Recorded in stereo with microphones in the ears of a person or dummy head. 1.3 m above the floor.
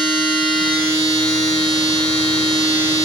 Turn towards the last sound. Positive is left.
turn(degrees=-45)  # may be behind; listen again after turning